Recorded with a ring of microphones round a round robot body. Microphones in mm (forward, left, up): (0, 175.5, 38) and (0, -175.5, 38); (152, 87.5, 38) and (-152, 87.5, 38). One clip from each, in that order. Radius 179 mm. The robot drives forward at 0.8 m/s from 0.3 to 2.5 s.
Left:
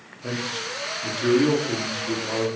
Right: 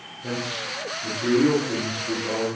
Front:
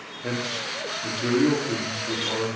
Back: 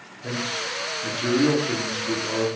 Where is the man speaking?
35° left, 1.6 m; by 2.5 s 150° left, 1.7 m.